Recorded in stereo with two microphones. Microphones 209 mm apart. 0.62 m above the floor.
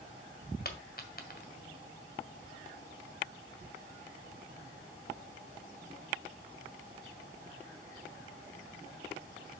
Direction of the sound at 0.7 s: 50° left (ahead or behind).